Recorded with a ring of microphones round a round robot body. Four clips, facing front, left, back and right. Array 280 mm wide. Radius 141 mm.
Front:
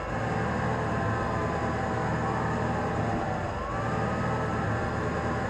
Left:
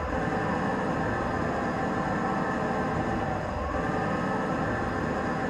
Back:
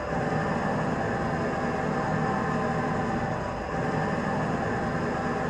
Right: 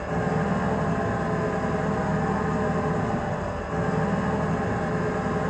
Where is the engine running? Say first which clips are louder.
Right 2 dB, back 2 dB; 100° right, 9.5 m.